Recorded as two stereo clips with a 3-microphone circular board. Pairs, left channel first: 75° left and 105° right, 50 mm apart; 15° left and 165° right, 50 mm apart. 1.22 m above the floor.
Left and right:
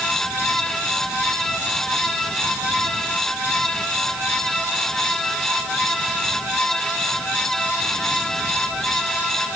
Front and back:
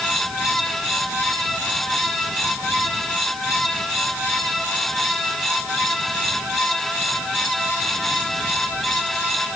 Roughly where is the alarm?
I don't hear an alarm.